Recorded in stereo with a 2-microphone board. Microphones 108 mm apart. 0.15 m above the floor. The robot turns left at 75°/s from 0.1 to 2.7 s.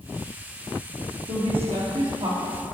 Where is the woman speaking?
70° right, 3 m; by 2.6 s 170° right, 3 m.